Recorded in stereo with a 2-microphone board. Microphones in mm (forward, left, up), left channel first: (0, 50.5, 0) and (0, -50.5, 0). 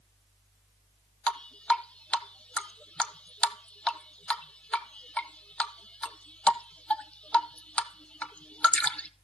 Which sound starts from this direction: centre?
Dripping, at 1.3 s.